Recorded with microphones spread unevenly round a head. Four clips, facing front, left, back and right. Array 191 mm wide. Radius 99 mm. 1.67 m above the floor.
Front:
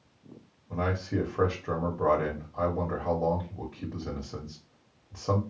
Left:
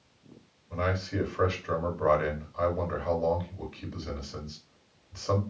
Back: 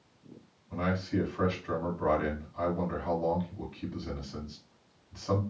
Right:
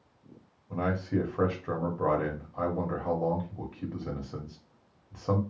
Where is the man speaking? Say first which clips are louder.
Right 1 dB, front 1 dB; 35° right, 2 m.